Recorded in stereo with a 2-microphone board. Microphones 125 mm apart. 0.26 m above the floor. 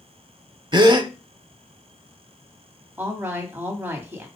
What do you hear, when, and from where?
0.7 s a gasp: 35° right (ahead or behind), 0.5 m
3.0 s a woman speaking: 15° right (ahead or behind), 1.6 m